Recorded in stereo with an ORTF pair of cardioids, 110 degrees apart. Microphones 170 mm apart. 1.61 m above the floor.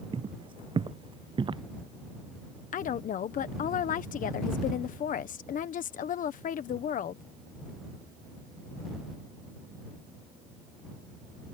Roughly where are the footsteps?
Ahead right.